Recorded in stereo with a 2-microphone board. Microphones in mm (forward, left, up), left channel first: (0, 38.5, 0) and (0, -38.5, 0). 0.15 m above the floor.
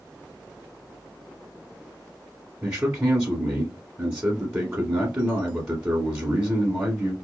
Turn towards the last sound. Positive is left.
turn(degrees=-15)  # may be behind; listen again after turning